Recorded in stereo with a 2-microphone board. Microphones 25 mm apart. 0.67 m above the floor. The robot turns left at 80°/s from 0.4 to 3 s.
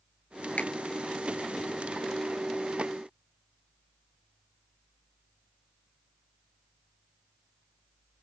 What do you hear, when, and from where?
0.6 s a finger snap: 80° left; by 0.7 s 85° left